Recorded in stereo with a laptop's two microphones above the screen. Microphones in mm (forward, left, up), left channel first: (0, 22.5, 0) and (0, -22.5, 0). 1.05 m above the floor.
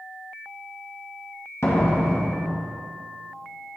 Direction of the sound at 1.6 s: 70° left (ahead or behind).